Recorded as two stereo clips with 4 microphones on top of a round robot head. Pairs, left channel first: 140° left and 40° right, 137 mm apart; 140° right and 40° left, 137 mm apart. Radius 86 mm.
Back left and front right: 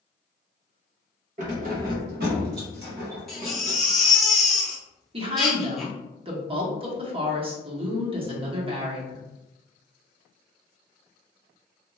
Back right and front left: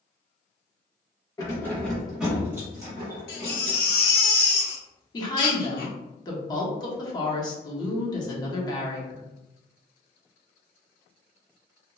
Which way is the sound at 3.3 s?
130° right.